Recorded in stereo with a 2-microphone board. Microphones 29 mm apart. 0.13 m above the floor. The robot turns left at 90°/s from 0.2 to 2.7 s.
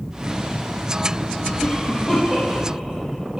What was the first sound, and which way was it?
A cough, 60° left (ahead or behind).